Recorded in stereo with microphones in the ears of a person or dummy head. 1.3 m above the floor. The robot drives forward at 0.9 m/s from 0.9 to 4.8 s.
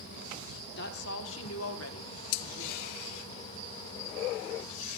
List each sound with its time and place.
0.8 s a woman speaking: 60° left (ahead or behind), 1.4 m; by 3.2 s 40° left (ahead or behind), 1.9 m